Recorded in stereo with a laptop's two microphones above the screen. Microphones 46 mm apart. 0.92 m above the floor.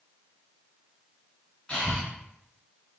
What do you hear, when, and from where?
1.7 s breathing: 20° left (ahead or behind), 1.6 m